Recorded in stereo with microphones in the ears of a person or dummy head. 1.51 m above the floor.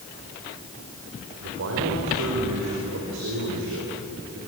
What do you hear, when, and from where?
1.4 s a man speaking: 65° right (ahead or behind), 4.5 m